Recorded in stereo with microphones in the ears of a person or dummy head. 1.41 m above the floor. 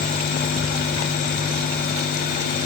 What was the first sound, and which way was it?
Only background noise.